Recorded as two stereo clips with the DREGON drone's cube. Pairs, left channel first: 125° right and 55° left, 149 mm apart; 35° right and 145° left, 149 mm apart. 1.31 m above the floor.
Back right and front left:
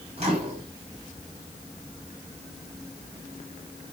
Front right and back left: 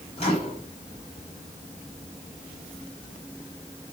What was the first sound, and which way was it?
A microwave, 10° left.